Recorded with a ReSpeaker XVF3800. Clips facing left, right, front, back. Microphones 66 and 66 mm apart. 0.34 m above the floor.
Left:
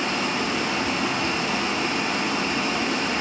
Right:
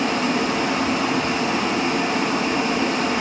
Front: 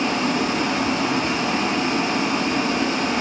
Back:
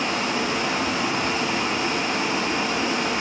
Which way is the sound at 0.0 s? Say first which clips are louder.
Right 4 dB, front 3 dB; 50° right.